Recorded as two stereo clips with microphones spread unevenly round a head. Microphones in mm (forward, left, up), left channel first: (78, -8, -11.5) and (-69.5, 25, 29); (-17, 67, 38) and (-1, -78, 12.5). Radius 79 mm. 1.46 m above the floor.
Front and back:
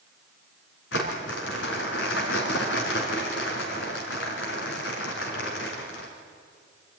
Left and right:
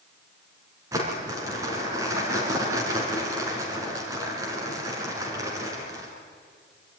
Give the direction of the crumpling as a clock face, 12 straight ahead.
12 o'clock.